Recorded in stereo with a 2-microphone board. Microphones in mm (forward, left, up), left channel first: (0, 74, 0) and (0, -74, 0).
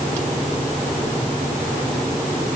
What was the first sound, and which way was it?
Only background noise.